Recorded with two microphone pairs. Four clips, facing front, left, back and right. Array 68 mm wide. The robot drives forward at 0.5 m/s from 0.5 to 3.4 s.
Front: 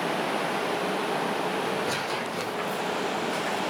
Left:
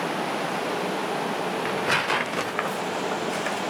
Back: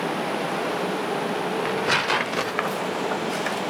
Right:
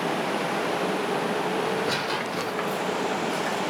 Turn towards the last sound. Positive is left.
turn(degrees=165)